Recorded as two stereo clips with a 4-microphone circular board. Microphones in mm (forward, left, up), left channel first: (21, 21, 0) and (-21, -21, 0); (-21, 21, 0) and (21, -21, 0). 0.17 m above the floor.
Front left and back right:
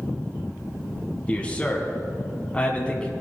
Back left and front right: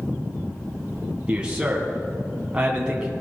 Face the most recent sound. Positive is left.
turn(degrees=5)